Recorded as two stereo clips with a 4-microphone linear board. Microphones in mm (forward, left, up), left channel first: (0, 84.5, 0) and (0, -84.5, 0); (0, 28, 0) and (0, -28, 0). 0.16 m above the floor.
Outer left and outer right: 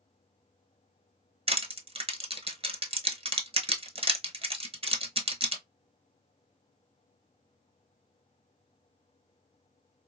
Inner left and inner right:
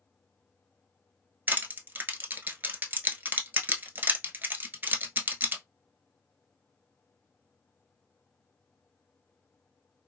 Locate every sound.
1.5 s crushing: 35° right (ahead or behind), 0.6 m